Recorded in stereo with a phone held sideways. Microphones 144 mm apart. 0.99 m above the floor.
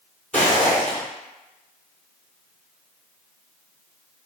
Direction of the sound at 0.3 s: 10° left (ahead or behind).